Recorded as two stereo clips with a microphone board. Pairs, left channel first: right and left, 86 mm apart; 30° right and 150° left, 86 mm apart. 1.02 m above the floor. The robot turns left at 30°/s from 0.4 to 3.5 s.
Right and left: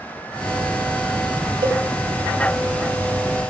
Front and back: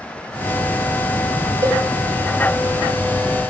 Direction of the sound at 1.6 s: 100° left.